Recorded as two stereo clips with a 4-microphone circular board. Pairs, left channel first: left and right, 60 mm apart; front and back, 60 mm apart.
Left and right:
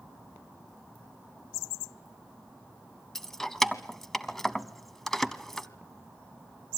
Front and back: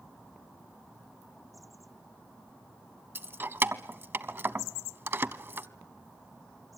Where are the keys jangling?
170° left, 0.8 m.